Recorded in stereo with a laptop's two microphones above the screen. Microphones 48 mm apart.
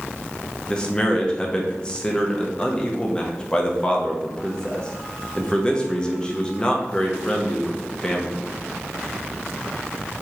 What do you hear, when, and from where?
0.7 s a man speaking: 20° left (ahead or behind), 0.7 m